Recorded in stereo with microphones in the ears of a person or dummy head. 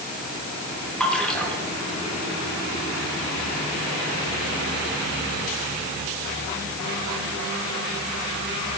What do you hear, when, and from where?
1.0 s a splash: 10° left (ahead or behind), 3 m